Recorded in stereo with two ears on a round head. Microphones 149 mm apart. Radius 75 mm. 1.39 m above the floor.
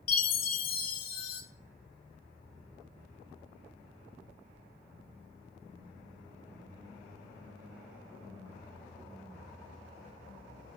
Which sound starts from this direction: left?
A chime, at 0.1 s.